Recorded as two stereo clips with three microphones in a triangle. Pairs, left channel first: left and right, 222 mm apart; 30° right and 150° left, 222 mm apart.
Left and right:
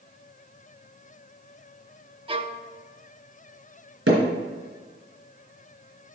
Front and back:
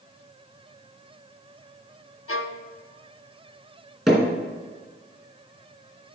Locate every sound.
2.3 s a violin: 20° right, 0.6 m
4.1 s hammering: 120° right, 3 m